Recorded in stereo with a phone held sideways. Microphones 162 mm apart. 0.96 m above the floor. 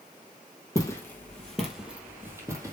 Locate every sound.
0.8 s footsteps: 20° left (ahead or behind), 1.5 m; by 2.7 s 20° right (ahead or behind), 1.8 m